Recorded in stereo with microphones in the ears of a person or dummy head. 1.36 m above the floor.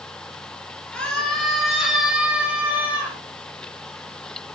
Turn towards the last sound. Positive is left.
turn(degrees=-15)  # may be behind; listen again after turning